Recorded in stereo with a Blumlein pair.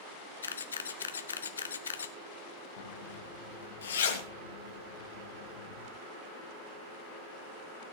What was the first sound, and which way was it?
A camera shutter, 70° left.